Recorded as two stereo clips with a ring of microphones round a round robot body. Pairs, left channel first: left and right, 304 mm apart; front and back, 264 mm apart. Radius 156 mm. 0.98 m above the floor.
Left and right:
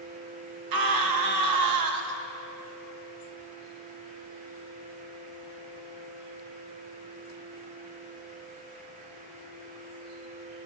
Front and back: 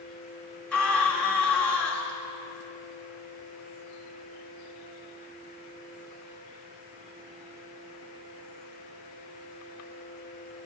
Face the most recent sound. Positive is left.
turn(degrees=-85)